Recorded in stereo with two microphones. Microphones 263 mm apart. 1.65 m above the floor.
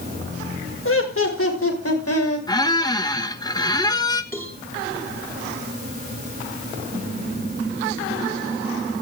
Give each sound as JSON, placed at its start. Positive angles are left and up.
{"t": 0.8, "sound": "laughter", "side_deg": 50, "distance_m": 4.5}
{"t": 2.5, "sound": "a squeak", "side_deg": 15, "distance_m": 1.3}
{"t": 4.3, "sound": "a cowbell", "side_deg": 10, "distance_m": 7.0}